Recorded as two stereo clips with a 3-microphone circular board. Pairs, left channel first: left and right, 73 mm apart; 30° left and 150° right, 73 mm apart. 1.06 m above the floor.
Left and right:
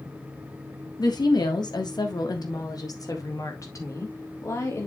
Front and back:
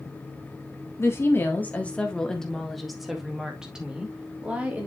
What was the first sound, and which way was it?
A woman speaking, 80° left.